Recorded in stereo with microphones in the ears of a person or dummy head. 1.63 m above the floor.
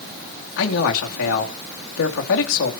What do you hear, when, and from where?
0.6 s a man speaking: 75° left (ahead or behind), 2.5 m